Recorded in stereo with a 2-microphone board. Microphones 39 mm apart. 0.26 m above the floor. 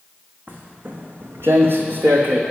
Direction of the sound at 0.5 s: 50° right (ahead or behind).